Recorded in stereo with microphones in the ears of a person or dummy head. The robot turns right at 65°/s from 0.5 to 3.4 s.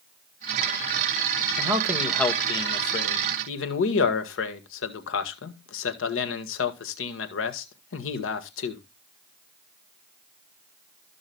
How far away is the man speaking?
About 1.8 m.